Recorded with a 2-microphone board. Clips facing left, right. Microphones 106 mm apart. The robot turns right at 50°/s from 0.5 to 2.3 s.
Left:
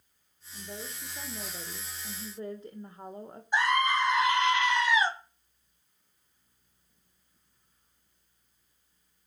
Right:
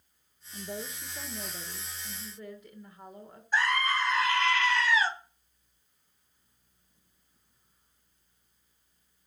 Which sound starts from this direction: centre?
A scream, at 3.5 s.